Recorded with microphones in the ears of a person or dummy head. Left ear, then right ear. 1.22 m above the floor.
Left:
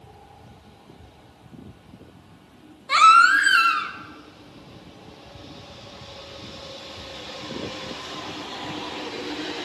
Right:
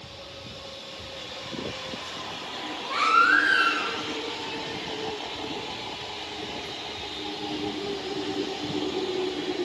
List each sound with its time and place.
2.9 s a baby crying: 60° left (ahead or behind), 1.5 m